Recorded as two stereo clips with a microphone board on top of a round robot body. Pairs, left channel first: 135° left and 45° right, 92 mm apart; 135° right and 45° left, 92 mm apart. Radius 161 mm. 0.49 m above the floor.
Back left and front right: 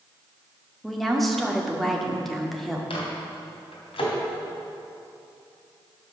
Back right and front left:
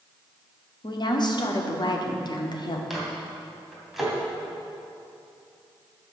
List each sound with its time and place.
0.8 s a woman speaking: 135° right, 2 m
2.9 s a microwave: 135° left, 3 m